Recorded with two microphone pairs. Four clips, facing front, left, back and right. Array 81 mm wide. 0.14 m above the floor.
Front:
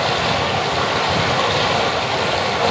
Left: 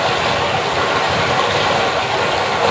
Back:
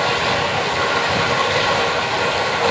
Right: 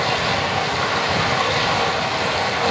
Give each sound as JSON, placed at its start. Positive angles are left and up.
{"t": 0.0, "sound": "running water", "azimuth_deg": 75, "distance_m": 3.5}